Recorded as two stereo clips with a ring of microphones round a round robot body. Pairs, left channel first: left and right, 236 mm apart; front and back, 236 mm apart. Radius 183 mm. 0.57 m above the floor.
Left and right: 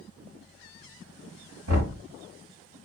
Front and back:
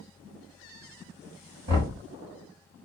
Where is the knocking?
120° right, 2.5 m.